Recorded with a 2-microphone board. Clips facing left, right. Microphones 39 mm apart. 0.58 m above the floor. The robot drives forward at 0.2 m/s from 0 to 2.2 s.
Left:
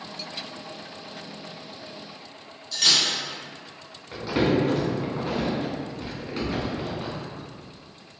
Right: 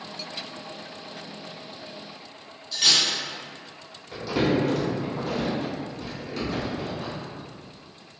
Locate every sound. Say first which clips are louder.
2.7 s cutlery clinking: even; 10° right (ahead or behind), 0.5 m
4.1 s crumpling: left 1 dB; 25° left (ahead or behind), 1.1 m